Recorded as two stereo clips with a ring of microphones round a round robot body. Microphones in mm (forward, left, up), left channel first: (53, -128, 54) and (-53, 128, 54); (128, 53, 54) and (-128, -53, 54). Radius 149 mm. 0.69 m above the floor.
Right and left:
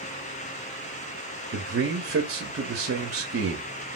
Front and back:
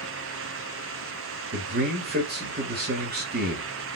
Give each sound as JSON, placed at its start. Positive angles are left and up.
{"t": 1.5, "sound": "a man speaking", "azimuth_deg": 155, "distance_m": 1.5}